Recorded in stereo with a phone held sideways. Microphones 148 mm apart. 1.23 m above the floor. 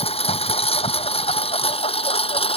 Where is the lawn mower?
40° left (ahead or behind).